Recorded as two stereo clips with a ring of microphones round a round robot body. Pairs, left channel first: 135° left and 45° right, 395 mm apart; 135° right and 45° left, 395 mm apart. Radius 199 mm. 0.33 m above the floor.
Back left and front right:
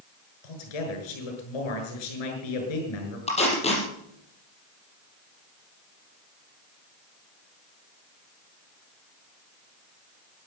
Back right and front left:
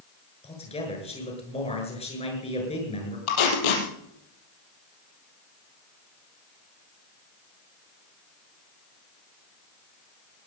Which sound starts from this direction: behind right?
Tape being pulled, at 3.3 s.